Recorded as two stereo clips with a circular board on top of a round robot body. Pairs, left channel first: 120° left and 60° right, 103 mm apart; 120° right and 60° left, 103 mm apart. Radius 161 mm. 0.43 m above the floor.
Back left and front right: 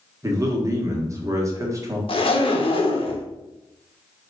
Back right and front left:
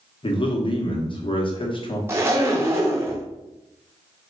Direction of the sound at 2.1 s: 120° left.